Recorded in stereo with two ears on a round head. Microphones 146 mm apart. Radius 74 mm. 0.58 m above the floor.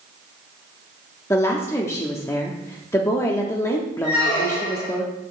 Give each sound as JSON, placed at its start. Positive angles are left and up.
{"t": 1.3, "sound": "a woman speaking", "side_deg": 15, "distance_m": 0.7}
{"t": 4.0, "sound": "a squeak", "side_deg": 75, "distance_m": 4.0}